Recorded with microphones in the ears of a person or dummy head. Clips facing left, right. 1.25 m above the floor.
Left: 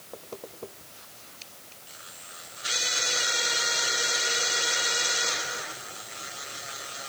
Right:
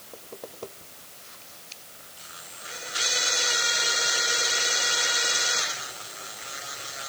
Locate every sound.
Only background noise.